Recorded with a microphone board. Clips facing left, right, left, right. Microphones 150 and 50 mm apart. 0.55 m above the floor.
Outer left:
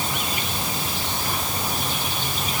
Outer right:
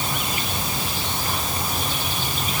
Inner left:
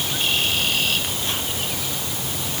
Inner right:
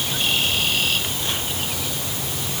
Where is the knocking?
I don't hear knocking.